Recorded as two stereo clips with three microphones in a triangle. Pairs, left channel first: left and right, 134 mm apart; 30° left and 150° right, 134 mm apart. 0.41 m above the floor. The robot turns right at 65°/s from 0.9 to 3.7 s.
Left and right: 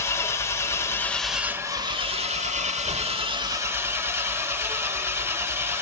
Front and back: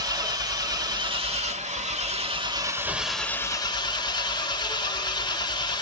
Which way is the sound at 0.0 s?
155° left.